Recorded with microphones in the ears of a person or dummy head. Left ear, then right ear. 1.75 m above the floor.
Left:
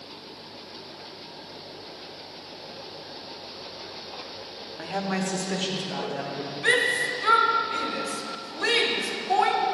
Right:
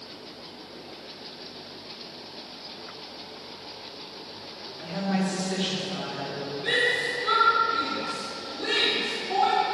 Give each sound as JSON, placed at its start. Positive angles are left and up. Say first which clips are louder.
{"t": 4.8, "sound": "a woman speaking", "louder": "left 1 dB", "side_deg": 45, "distance_m": 0.8}
{"t": 6.6, "sound": "a shout", "louder": "left 2 dB", "side_deg": 55, "distance_m": 1.2}